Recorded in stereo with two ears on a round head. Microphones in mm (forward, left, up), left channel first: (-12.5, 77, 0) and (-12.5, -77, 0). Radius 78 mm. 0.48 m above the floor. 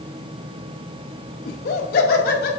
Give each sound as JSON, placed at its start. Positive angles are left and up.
{"t": 1.4, "sound": "laughter", "side_deg": 50, "distance_m": 1.7}